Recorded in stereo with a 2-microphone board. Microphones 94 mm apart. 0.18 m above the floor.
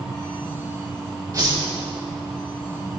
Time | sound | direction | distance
1.3 | a whoosh | 35° right (ahead or behind) | 4.5 m